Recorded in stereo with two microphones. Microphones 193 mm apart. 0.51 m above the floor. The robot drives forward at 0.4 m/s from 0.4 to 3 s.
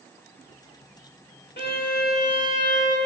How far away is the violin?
About 0.8 m.